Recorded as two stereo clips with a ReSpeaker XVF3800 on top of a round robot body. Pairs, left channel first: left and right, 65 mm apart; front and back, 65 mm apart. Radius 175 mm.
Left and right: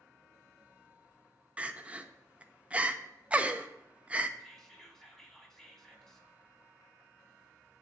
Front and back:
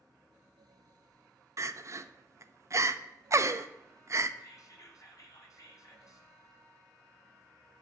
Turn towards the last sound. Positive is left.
turn(degrees=10)